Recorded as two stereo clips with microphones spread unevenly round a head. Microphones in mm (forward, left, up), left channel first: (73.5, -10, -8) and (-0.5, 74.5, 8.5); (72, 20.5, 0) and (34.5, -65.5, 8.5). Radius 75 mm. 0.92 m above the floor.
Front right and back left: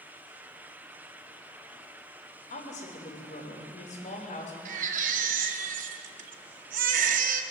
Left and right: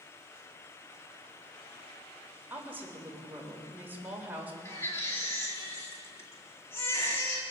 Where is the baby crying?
140° left, 1.0 m.